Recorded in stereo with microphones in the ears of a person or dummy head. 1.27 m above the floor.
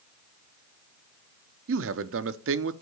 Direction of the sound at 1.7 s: 60° right (ahead or behind).